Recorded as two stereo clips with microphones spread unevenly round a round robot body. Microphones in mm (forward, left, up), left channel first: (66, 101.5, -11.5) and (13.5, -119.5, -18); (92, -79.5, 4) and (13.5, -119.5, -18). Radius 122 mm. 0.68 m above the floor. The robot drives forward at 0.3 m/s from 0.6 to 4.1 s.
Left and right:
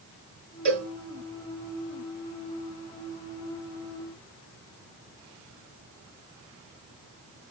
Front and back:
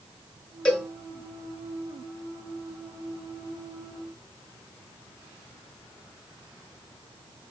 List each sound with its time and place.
0.7 s a cowbell: 50° right, 1.8 m; by 0.9 s 55° right, 1.8 m